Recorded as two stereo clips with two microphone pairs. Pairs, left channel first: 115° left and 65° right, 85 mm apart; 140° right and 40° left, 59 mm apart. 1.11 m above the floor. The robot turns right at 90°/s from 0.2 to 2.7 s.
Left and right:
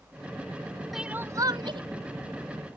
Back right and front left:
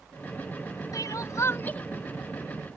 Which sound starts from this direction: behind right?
Crying, at 0.9 s.